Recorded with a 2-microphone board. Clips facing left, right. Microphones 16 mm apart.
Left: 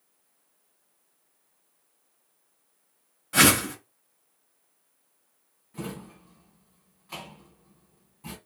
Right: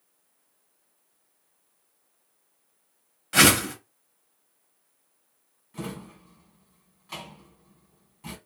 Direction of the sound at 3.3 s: 45° right (ahead or behind).